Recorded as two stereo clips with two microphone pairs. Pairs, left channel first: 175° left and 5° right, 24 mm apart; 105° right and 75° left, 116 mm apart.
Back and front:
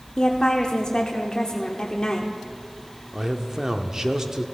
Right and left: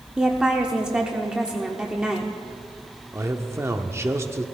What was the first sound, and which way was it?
A woman speaking, 155° left.